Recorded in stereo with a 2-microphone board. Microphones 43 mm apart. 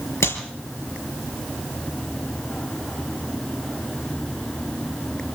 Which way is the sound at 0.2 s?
85° left.